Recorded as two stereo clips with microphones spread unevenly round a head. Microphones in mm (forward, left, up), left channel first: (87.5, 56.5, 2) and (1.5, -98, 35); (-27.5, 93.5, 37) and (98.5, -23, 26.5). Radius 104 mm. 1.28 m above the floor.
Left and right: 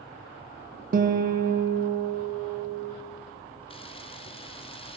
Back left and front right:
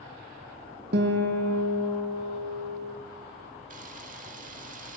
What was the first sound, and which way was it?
A guitar, 75° right.